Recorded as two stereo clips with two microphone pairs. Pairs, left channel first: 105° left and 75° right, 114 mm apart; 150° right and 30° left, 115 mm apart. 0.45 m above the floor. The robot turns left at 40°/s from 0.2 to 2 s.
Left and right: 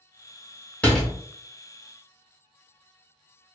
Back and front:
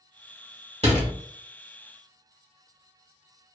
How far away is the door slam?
About 1.4 m.